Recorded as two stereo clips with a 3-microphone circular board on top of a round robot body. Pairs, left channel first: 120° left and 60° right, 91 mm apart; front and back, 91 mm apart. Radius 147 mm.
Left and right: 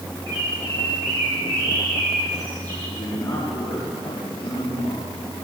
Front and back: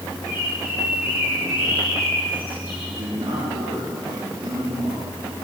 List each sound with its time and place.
0.3 s a bird: 110° right, 7.5 m
2.9 s a man speaking: 175° right, 8.5 m